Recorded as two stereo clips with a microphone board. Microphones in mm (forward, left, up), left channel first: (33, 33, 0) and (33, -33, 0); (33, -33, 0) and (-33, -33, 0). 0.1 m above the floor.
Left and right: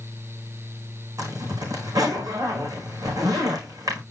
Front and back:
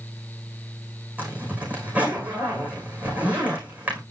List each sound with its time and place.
1.2 s a zipper: 115° right, 5 m